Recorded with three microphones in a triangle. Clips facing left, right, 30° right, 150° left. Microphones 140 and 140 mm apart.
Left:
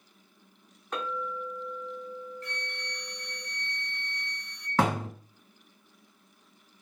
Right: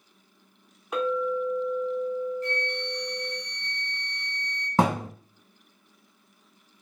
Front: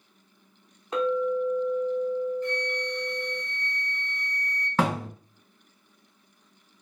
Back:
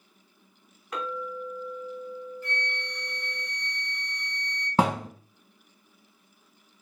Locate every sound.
0.9 s a clink: 20° right, 0.7 m
2.4 s a flute: 135° right, 1.6 m
4.8 s a thud: 150° right, 1.3 m